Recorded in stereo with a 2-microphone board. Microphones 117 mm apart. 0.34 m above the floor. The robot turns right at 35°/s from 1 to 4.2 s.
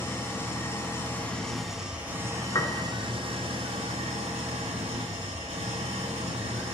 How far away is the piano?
About 0.6 m.